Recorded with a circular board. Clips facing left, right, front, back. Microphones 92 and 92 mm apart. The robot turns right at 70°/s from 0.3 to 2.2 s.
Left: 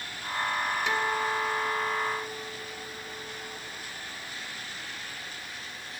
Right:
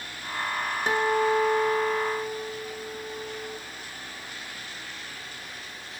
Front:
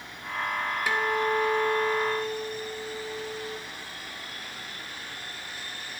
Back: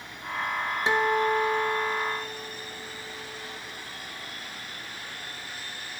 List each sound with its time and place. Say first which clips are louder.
0.9 s a guitar: right 9 dB, back 3 dB; 125° right, 1.3 m; by 3.6 s 30° right, 1.3 m